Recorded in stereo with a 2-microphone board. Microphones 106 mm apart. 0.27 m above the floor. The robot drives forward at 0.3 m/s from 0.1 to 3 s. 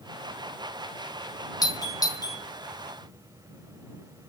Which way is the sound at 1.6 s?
35° left (ahead or behind).